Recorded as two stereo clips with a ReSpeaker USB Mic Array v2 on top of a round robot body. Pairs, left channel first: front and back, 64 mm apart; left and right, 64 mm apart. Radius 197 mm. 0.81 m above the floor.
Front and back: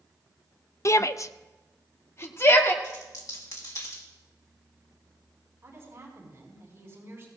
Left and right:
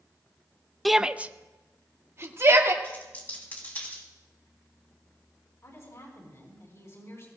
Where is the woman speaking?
135° left, 5 m.